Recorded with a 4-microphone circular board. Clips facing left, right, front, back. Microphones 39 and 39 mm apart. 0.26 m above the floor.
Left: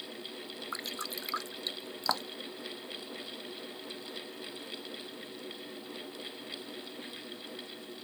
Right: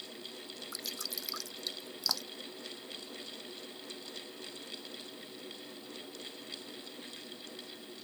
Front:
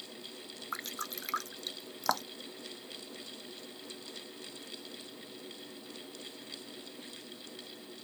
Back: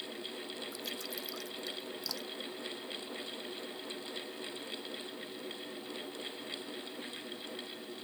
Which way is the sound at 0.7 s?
35° left.